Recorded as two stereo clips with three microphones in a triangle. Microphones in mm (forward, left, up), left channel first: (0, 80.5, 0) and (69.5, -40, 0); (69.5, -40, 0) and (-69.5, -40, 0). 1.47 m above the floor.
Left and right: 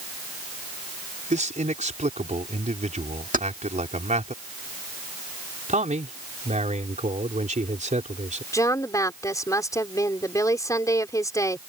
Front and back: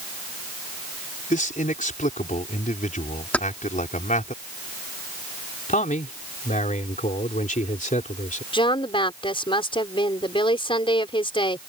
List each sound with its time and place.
1.3 s a man speaking: 25° right
3.3 s keys jangling: 80° right
5.7 s a man speaking: 25° right
8.5 s a woman speaking: 50° left